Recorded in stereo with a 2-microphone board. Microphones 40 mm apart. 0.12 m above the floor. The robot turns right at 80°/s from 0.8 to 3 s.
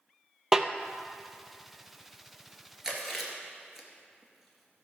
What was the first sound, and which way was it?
A snare drum, 15° right (ahead or behind).